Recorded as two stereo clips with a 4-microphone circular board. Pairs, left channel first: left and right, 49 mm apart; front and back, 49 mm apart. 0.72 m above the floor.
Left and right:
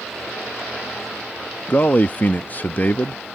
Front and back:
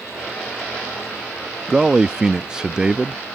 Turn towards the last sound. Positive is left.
turn(degrees=115)